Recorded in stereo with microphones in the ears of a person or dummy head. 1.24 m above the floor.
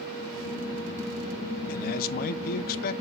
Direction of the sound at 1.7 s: 60° left (ahead or behind).